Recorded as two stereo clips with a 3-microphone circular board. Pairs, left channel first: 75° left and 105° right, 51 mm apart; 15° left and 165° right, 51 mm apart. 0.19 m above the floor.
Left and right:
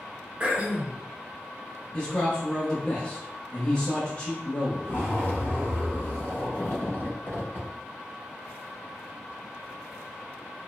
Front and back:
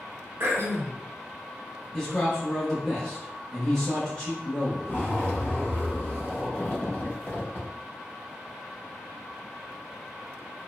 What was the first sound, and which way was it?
Throat clearing, 165° right.